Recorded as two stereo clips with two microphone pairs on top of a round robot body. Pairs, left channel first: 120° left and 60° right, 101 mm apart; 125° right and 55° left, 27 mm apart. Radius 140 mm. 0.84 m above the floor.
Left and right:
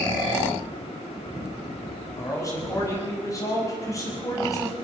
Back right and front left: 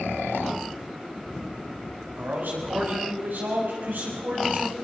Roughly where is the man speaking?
Ahead left.